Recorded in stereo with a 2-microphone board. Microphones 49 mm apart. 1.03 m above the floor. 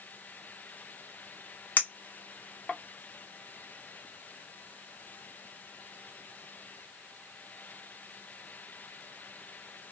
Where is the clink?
45° left (ahead or behind), 0.7 m.